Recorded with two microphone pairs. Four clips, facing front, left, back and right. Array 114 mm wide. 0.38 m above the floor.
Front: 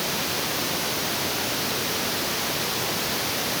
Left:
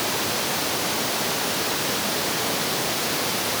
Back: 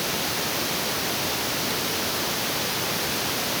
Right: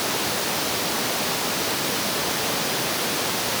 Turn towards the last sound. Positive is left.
No sound to turn to.